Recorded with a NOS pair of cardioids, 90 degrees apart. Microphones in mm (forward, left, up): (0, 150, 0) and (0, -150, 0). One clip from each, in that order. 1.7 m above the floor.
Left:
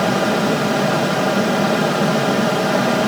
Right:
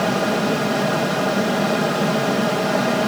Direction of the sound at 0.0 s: 20° left.